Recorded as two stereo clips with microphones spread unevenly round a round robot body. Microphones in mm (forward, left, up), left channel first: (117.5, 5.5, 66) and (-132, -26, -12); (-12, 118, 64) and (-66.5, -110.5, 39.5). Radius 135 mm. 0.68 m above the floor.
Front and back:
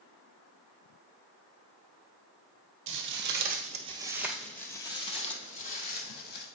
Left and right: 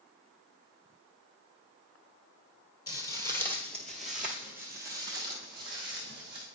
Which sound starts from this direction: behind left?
Footsteps, at 2.9 s.